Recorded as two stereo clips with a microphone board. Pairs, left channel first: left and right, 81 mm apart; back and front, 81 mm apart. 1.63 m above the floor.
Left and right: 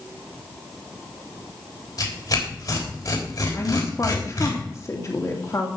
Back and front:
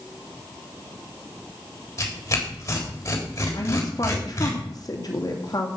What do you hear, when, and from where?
2.0 s tearing paper: 130° left, 3.5 m
3.5 s a woman speaking: 140° left, 2.5 m